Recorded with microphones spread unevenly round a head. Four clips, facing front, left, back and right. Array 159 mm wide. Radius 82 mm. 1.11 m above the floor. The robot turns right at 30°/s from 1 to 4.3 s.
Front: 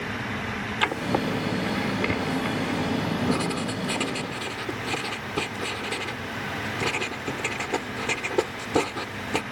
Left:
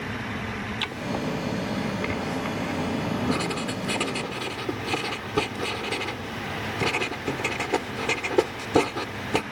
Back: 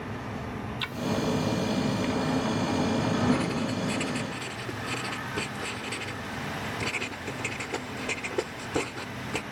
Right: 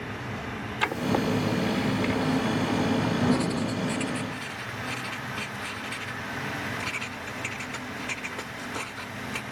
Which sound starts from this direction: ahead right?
Writing, at 0.8 s.